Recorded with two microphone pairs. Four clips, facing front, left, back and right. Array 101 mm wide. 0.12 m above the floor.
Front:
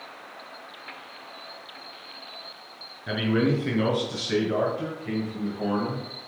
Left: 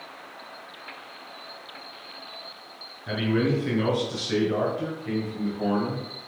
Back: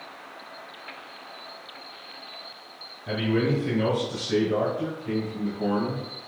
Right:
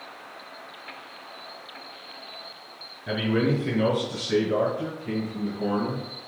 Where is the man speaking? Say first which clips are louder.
Even, front 1 dB; 5° right, 1.6 m; by 6.0 s 50° left, 2.5 m.